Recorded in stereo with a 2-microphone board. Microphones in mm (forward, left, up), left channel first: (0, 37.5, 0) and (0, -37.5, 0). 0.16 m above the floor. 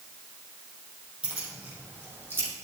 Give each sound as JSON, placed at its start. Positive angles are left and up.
{"t": 1.2, "sound": "keys jangling", "side_deg": -15, "distance_m": 3.5}